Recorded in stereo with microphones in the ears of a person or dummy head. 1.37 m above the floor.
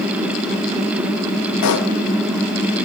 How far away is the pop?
About 1.5 m.